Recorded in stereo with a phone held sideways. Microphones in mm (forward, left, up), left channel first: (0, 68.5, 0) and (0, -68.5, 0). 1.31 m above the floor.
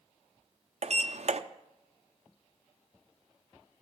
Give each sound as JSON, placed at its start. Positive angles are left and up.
{"t": 0.8, "sound": "a sliding door", "side_deg": -55, "distance_m": 0.6}